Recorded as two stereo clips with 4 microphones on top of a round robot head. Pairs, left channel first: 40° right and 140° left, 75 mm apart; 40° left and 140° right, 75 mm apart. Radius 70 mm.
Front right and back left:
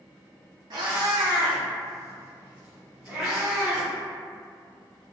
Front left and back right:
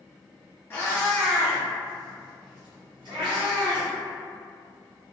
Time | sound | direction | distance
0.7 | a cat meowing | 105° left | 0.8 m